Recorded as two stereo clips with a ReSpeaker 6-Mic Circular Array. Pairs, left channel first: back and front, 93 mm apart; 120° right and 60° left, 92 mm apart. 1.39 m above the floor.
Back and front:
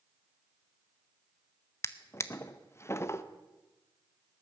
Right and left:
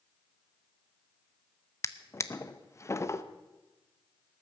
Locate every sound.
1.8 s a drawer: 150° right, 0.7 m